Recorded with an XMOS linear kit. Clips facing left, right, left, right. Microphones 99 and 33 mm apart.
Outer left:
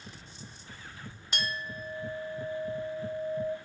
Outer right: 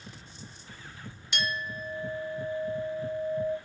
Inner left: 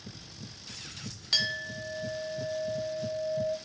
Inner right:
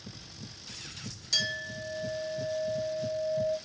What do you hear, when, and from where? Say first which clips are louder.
1.3 s a clink: outer right 3 dB, inner left 1 dB; 40° left (ahead or behind), 1.8 m